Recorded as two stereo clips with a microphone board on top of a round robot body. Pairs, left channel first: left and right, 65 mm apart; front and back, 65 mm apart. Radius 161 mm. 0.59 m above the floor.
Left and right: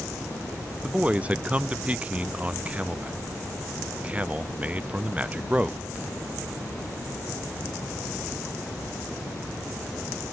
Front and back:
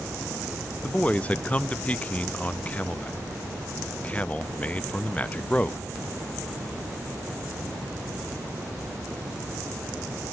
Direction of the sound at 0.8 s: 45° right.